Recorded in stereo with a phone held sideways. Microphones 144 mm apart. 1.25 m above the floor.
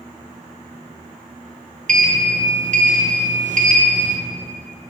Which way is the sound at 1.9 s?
65° right (ahead or behind).